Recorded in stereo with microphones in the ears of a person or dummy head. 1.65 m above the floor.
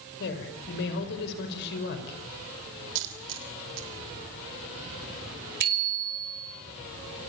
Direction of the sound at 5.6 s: 50° right (ahead or behind).